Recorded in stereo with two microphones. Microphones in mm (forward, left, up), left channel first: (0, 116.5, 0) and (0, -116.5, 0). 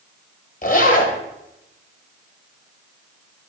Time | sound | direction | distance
0.6 | a zipper | 40° left (ahead or behind) | 1.5 m